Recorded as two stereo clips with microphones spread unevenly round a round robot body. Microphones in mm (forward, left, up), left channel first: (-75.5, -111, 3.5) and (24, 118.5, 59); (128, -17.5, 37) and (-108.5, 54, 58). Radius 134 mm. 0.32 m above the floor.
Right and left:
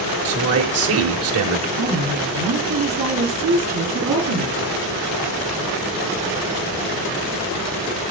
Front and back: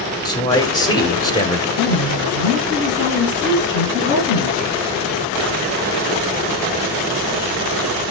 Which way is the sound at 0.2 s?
50° left.